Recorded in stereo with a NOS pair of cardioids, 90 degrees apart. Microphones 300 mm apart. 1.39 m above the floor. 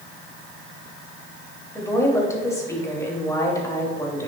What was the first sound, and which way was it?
A woman speaking, 10° left.